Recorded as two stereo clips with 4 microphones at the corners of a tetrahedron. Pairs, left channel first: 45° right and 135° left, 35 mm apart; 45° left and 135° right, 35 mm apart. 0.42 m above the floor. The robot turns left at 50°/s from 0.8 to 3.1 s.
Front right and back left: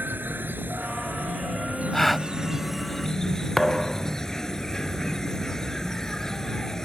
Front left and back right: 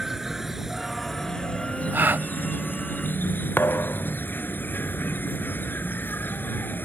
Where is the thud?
40° left.